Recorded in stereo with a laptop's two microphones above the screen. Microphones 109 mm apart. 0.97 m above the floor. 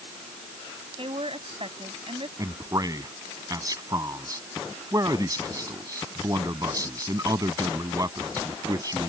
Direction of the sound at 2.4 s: 35° right (ahead or behind).